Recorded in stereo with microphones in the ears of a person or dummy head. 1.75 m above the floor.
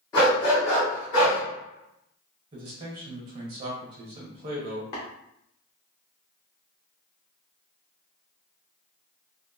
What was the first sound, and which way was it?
A dog barking, 15° left (ahead or behind).